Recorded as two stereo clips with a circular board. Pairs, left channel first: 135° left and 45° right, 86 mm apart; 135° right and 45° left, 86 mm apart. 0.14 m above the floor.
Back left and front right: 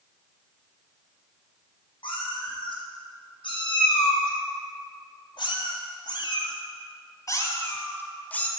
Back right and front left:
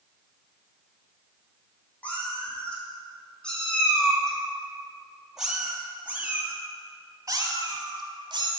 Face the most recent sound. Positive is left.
turn(degrees=60)